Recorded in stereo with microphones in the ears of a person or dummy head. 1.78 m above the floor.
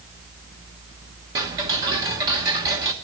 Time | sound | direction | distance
1.4 | ticking | 20° right (ahead or behind) | 1.0 m